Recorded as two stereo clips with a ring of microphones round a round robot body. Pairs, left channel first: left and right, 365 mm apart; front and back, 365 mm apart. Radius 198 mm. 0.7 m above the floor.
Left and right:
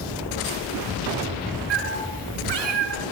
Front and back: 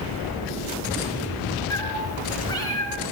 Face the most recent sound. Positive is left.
turn(degrees=-80)